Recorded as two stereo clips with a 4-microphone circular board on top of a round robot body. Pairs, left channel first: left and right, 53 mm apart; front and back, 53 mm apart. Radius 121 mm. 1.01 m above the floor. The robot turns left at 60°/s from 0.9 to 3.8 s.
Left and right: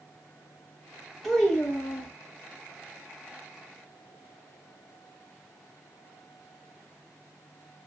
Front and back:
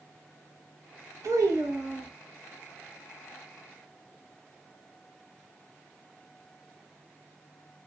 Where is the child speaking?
175° left, 1.0 m; by 2.1 s 120° left, 1.0 m.